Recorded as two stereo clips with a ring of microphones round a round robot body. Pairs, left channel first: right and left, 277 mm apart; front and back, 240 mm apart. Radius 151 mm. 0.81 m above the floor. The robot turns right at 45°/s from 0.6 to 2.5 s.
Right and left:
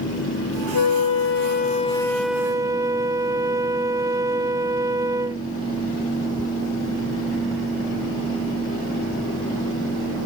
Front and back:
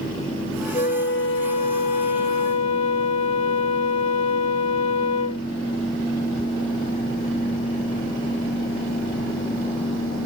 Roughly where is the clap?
I don't hear a clap.